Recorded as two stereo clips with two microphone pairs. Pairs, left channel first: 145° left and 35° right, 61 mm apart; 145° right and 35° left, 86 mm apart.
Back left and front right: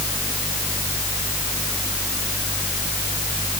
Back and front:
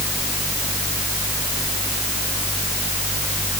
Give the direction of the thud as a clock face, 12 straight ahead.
I don't hear a thud.